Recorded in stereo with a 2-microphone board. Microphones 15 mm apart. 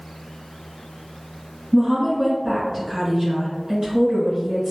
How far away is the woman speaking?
About 1.8 m.